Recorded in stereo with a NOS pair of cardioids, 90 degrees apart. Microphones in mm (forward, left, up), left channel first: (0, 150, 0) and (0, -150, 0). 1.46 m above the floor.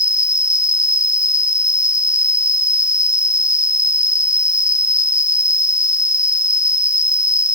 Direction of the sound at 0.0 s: 10° left.